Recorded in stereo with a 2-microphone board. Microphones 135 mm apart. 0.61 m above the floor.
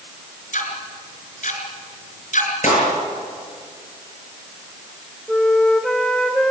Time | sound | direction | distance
0.5 | ticking | 70° left (ahead or behind) | 4 m
2.6 | a clap | 65° left (ahead or behind) | 8 m
5.3 | a flute | 5° left (ahead or behind) | 2.5 m